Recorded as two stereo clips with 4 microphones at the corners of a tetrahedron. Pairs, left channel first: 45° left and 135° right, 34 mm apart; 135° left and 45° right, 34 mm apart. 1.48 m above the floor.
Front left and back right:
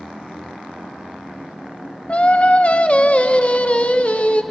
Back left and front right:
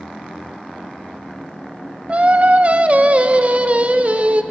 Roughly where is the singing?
Ahead.